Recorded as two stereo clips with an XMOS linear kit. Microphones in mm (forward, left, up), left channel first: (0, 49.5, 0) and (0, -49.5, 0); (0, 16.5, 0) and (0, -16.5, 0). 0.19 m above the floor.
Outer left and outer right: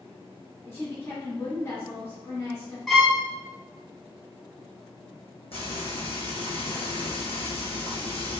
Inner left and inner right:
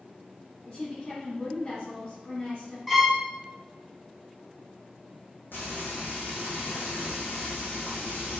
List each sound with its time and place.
0.7 s a woman speaking: 30° left (ahead or behind), 1.2 m
2.9 s a violin: centre (ahead or behind), 0.6 m
5.5 s frying: 80° left, 1.4 m